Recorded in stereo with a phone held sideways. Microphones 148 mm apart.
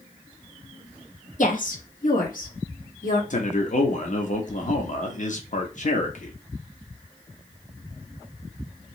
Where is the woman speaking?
60° left (ahead or behind), 0.7 m; by 3.2 s 70° left (ahead or behind), 1.7 m.